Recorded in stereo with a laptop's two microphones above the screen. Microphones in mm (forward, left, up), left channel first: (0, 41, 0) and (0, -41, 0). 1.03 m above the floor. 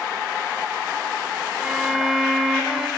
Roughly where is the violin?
Centre.